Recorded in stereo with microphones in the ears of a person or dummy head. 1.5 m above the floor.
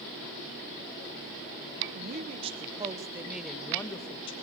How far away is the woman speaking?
About 1.3 m.